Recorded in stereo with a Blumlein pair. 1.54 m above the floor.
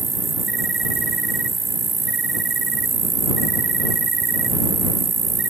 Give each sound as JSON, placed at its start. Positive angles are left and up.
{"t": 0.0, "sound": "an insect", "azimuth_deg": -15}